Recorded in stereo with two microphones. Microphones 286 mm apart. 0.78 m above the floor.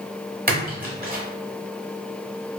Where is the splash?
30° right (ahead or behind), 0.9 m.